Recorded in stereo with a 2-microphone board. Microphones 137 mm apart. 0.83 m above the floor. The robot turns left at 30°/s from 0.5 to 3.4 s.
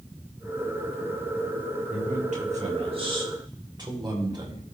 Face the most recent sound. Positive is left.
turn(degrees=-150)